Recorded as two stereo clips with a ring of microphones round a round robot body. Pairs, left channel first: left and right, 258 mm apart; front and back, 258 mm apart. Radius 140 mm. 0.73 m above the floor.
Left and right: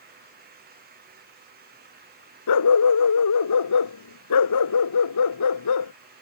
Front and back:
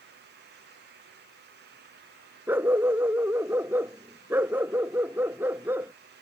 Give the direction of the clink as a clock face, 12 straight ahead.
No clink in this recording.